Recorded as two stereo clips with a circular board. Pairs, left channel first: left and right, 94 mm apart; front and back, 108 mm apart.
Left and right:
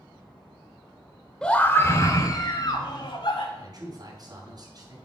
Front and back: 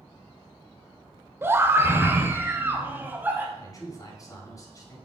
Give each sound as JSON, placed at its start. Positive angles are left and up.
{"t": 1.4, "sound": "a scream", "azimuth_deg": 160, "distance_m": 0.8}
{"t": 3.6, "sound": "a man speaking", "azimuth_deg": -50, "distance_m": 2.5}